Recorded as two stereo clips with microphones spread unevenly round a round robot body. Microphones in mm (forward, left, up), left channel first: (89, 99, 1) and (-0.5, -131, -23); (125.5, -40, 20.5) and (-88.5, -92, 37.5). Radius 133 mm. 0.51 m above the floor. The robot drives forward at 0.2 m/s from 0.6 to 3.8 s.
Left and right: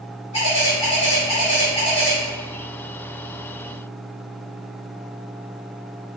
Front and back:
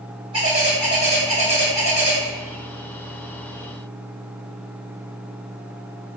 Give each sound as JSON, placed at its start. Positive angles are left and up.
{"t": 0.3, "sound": "a bird", "azimuth_deg": 130, "distance_m": 1.7}